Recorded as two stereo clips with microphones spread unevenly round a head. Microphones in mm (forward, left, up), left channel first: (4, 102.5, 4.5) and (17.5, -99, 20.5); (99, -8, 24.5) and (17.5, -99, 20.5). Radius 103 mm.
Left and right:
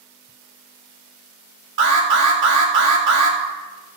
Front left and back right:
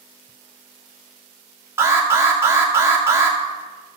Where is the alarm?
65° right, 2.5 m.